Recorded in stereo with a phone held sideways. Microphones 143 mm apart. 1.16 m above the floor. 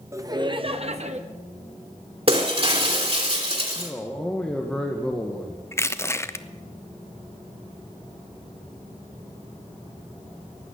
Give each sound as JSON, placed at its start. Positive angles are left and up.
{"t": 0.1, "sound": "laughter", "side_deg": -20, "distance_m": 1.2}
{"t": 2.3, "sound": "breaking glass", "side_deg": -45, "distance_m": 2.5}
{"t": 3.8, "sound": "a man speaking", "side_deg": 5, "distance_m": 1.2}
{"t": 5.7, "sound": "crushing", "side_deg": 20, "distance_m": 0.6}